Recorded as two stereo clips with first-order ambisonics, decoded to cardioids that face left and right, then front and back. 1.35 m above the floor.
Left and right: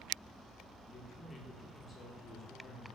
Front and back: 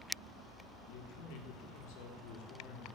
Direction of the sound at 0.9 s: 20° left.